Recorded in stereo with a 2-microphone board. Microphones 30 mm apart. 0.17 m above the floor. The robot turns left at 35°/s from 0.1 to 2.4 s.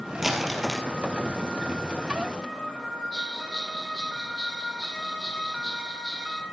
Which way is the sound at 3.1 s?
20° left (ahead or behind).